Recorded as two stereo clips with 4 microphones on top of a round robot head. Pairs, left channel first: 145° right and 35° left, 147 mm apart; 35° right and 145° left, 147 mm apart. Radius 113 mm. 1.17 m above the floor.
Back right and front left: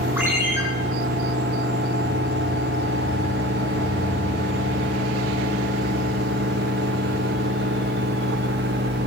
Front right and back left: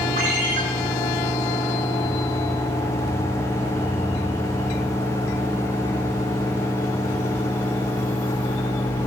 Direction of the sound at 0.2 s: 110° left.